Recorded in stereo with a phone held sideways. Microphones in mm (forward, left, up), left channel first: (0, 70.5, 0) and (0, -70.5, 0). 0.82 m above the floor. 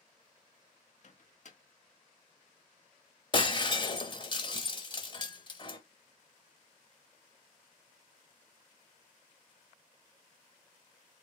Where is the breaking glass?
35° left (ahead or behind), 0.9 m.